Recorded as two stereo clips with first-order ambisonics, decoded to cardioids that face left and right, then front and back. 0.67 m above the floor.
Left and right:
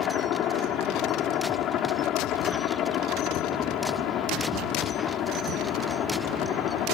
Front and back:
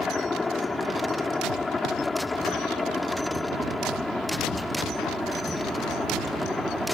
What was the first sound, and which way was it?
A helicopter, 70° left.